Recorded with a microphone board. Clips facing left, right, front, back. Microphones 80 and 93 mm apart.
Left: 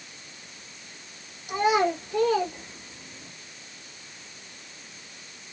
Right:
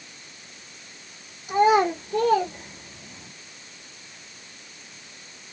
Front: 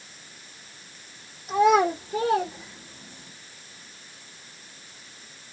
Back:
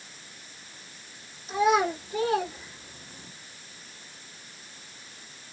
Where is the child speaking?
20° right, 1.5 m; by 3.3 s 95° right, 1.6 m.